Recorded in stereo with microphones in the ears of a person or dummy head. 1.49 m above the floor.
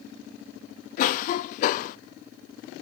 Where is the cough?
45° left (ahead or behind), 0.5 m.